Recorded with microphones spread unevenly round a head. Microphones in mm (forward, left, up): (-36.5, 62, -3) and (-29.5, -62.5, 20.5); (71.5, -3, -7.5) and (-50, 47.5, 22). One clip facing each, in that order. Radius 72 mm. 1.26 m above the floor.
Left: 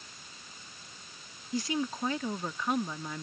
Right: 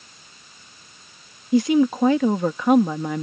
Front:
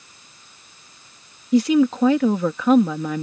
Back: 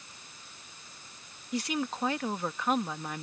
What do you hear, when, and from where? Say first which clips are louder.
1.5 s a woman speaking: right 15 dB, front 16 dB; 40° right